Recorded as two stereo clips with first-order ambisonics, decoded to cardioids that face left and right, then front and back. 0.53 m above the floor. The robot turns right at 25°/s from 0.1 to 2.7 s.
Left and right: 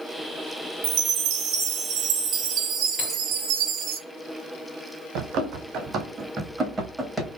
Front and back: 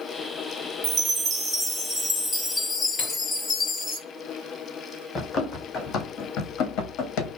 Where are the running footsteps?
65° right, 1.1 m; by 7.4 s 10° left, 1.1 m.